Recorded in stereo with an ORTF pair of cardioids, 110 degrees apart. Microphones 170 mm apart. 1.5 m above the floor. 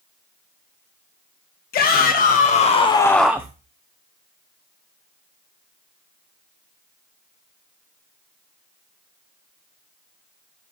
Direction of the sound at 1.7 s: 60° left.